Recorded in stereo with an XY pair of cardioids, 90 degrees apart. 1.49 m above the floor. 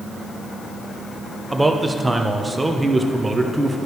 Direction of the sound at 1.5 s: 15° right.